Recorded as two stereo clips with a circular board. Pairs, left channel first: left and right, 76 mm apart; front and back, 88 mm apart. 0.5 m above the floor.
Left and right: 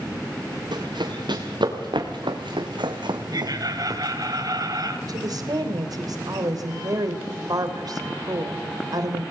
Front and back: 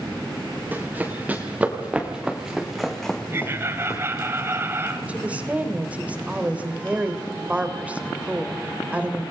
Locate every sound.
0.7 s running footsteps: 110° right, 4.5 m; by 4.0 s 45° right, 1.4 m
3.3 s laughter: 120° right, 3 m
5.1 s a woman speaking: 105° right, 2.5 m